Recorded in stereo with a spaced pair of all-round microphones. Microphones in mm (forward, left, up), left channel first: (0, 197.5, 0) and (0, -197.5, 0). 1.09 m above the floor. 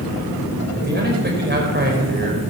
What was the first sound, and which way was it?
A man speaking, 25° right (ahead or behind).